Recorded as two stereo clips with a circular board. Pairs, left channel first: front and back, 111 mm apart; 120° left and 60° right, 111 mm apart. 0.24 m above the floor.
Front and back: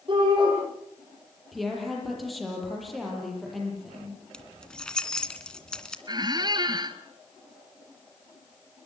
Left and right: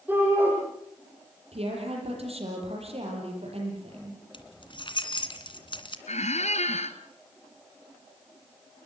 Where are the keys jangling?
80° left, 2 m.